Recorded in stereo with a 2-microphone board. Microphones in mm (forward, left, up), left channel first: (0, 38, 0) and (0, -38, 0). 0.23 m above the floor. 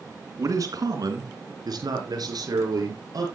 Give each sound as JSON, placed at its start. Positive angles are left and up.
{"t": 0.4, "sound": "a man speaking", "side_deg": -50, "distance_m": 3.0}